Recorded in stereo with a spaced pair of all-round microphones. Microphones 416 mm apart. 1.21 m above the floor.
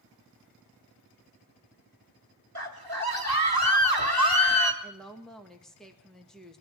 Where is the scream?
60° right (ahead or behind), 1.8 m.